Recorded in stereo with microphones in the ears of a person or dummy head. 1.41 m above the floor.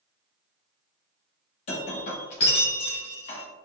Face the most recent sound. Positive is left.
turn(degrees=40)  # may be behind; listen again after turning